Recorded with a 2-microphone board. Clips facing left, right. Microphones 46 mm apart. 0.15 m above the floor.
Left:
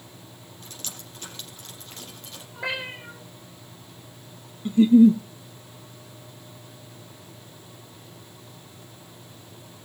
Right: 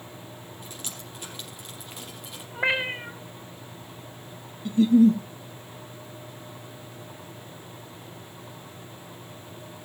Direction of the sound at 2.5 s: 35° right (ahead or behind).